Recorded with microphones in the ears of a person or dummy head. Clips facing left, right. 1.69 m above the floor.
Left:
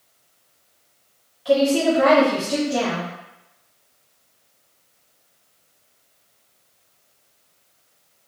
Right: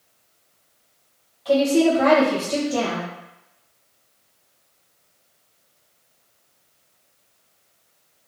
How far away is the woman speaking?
About 1.6 m.